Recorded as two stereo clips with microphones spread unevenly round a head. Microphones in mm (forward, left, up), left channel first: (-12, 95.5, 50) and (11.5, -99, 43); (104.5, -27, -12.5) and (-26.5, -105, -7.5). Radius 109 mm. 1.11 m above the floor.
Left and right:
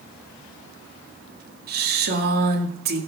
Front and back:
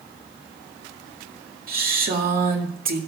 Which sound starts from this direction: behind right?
A woman speaking, at 1.7 s.